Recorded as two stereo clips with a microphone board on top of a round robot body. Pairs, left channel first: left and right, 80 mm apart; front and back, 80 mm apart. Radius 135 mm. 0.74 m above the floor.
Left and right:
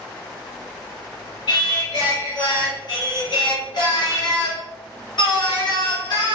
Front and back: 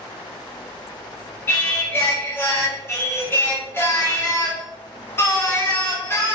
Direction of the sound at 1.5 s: 60° left.